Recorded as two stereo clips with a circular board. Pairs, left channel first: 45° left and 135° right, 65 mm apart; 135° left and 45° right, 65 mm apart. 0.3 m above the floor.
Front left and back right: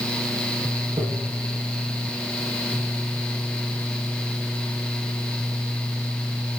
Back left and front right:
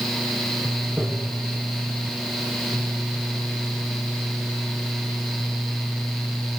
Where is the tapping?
120° right, 3.5 m.